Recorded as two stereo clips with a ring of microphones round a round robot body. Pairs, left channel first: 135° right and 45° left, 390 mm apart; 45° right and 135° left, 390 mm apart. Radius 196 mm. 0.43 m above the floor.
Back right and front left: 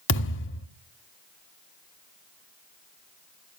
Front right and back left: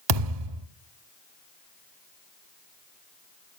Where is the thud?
165° left, 1.5 m.